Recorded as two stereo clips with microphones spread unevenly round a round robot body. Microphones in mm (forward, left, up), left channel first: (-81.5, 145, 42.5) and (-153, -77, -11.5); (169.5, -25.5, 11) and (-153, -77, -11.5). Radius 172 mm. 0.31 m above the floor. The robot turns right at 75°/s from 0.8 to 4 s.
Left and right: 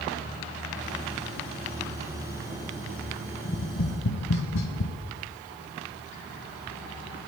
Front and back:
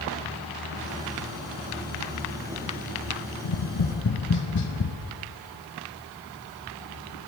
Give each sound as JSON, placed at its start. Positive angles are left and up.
{"t": 3.4, "sound": "tapping", "azimuth_deg": 15, "distance_m": 1.9}